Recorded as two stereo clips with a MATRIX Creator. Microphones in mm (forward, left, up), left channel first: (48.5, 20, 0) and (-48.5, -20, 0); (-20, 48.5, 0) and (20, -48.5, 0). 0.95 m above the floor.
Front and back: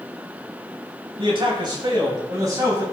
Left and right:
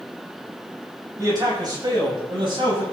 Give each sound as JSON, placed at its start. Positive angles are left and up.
{"t": 1.2, "sound": "a man speaking", "azimuth_deg": -120, "distance_m": 5.0}